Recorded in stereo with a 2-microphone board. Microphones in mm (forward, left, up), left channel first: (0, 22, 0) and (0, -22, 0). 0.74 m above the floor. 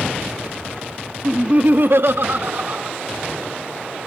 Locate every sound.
1.2 s laughter: 15° right (ahead or behind), 1.0 m; by 2.9 s 40° right (ahead or behind), 1.9 m